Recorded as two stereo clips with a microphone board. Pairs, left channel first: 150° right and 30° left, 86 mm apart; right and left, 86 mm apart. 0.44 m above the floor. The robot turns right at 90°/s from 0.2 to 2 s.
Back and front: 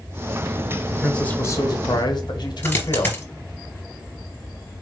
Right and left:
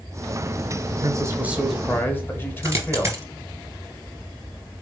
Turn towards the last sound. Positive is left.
turn(degrees=145)